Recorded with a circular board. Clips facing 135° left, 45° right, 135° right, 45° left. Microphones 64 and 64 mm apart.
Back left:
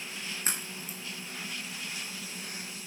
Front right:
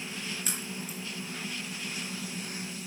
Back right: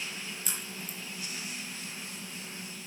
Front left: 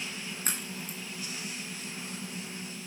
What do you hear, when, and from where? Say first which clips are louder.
0.5 s a crack: front right 1 dB, front left 3 dB; 85° left, 4 m